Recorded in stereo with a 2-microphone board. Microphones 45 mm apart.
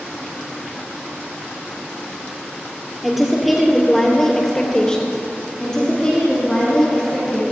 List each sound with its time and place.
3.0 s a woman speaking: 5° right (ahead or behind), 3.5 m; by 5.2 s 20° left (ahead or behind), 3 m
5.6 s a woman speaking: 10° left (ahead or behind), 5.5 m